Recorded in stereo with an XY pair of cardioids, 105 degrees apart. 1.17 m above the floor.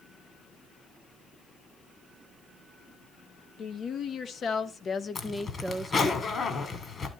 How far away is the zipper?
About 2.5 m.